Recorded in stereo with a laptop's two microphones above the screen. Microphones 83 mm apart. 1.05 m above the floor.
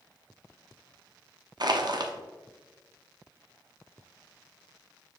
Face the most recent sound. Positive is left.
turn(degrees=-55)  # may be behind; listen again after turning